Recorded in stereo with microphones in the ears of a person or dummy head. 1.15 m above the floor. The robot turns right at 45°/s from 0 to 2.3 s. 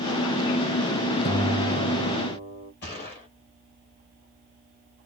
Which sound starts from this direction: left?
A gunshot, at 2.8 s.